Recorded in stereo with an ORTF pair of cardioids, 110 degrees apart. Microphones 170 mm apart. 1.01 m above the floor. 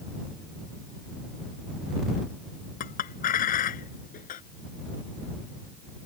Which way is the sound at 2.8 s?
55° left.